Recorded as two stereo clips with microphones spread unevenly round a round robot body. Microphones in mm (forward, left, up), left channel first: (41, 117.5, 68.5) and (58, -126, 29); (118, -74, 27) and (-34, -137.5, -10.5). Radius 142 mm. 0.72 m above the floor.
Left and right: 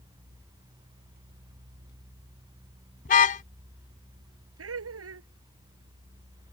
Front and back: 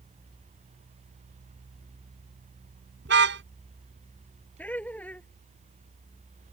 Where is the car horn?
155° left.